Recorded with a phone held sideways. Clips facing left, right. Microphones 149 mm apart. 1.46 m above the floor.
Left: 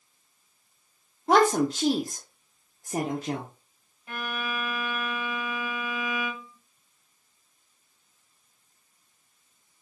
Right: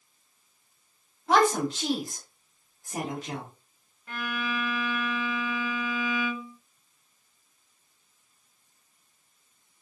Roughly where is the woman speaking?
Left.